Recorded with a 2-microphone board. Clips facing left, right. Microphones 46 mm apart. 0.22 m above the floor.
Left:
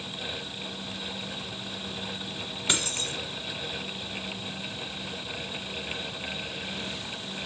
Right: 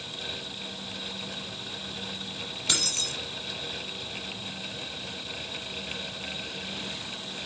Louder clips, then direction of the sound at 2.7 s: Left 2 dB; 20° left (ahead or behind).